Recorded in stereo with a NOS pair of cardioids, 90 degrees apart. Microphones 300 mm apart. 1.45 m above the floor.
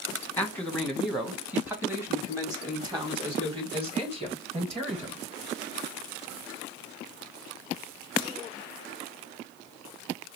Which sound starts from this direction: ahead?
A man speaking, at 0.4 s.